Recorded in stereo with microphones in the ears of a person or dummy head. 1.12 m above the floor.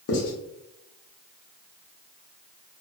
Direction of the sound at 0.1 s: 65° left (ahead or behind).